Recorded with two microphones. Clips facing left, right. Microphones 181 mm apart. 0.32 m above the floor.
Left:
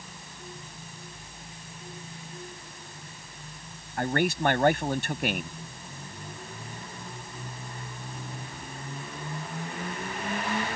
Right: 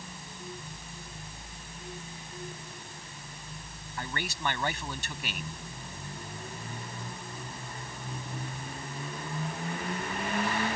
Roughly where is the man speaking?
Left.